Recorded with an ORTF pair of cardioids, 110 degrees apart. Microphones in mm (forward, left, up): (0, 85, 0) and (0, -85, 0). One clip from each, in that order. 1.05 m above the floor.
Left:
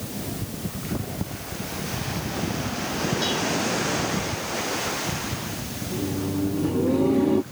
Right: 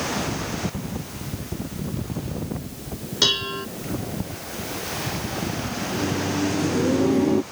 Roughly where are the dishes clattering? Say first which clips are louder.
Right 7 dB; right.